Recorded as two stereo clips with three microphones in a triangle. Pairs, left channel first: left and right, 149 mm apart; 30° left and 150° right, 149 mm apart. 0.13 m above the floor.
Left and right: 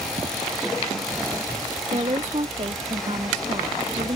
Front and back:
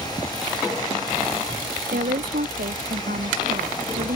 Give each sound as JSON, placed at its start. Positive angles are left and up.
{"t": 1.9, "sound": "a woman speaking", "azimuth_deg": -140}